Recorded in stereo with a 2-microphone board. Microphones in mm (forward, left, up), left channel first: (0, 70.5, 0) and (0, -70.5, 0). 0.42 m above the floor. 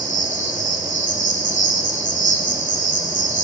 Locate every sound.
0.0 s an insect: 70° right (ahead or behind), 1.6 m